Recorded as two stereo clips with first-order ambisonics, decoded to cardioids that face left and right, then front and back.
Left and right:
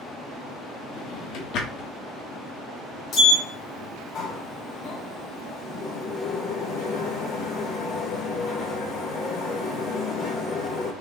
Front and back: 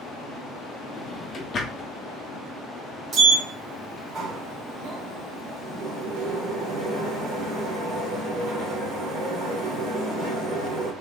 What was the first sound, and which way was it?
A drawer, 65° left.